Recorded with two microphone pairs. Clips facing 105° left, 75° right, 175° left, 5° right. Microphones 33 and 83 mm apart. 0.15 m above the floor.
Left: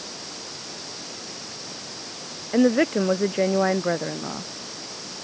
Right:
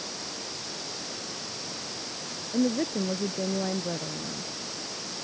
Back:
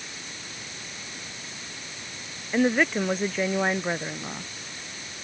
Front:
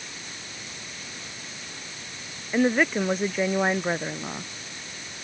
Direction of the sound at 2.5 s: 85° left.